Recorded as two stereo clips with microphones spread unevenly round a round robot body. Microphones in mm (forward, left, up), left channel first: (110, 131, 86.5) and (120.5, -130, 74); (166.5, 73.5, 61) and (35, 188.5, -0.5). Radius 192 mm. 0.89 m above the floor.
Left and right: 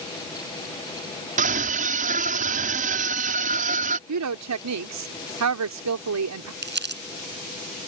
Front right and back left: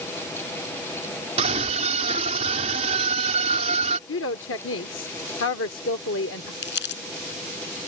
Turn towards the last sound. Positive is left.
turn(degrees=-40)